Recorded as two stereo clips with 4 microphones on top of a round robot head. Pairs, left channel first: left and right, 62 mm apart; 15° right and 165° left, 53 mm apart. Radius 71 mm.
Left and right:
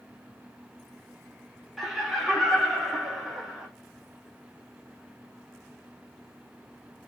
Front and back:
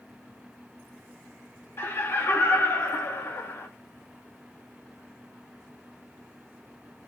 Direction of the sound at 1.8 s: Straight ahead.